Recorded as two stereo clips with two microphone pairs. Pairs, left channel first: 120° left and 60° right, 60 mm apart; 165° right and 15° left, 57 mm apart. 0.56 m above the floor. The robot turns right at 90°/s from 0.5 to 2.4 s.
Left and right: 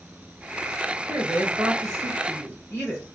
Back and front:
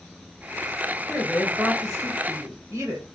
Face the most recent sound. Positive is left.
turn(degrees=-5)